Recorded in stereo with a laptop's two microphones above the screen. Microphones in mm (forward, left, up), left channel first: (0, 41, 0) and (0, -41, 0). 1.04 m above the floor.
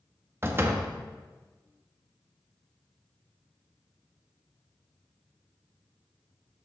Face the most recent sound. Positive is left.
turn(degrees=-30)  # may be behind; listen again after turning